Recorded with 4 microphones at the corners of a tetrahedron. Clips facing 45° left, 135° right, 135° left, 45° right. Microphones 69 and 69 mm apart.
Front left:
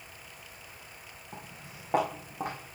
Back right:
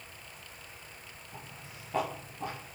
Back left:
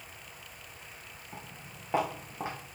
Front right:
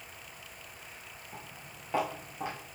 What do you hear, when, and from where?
1.3 s footsteps: 60° left, 4.5 m; by 2.6 s 70° left, 3.5 m